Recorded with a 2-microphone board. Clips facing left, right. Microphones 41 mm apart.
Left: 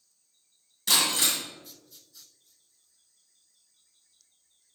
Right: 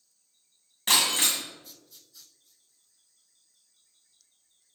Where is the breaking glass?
40° right (ahead or behind), 2 m.